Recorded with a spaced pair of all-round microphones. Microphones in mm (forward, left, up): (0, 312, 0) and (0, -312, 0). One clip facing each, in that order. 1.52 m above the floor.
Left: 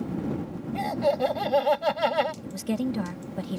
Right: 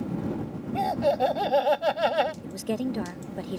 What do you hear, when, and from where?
0.7 s laughter: 30° left (ahead or behind)
2.4 s a woman speaking: 30° left (ahead or behind)